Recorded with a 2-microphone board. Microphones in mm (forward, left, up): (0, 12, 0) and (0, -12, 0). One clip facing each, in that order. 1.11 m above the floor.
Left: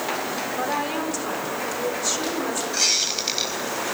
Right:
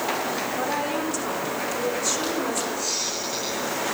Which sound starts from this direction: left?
A squeak, at 2.7 s.